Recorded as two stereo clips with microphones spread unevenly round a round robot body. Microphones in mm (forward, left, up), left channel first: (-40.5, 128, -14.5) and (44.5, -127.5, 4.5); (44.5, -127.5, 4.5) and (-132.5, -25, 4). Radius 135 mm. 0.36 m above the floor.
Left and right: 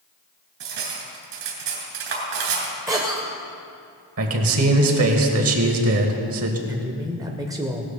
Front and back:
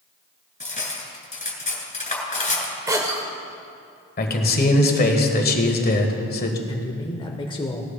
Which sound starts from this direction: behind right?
A cough, at 2.9 s.